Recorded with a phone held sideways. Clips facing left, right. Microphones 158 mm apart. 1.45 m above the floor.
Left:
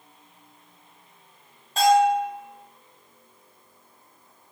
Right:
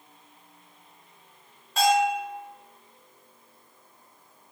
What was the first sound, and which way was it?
A bell, 30° left (ahead or behind).